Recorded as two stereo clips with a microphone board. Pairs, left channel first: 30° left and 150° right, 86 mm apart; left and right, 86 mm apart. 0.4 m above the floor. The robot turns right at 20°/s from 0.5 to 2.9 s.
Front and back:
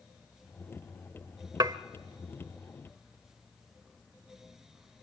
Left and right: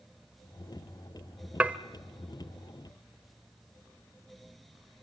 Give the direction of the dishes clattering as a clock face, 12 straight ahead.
5 o'clock.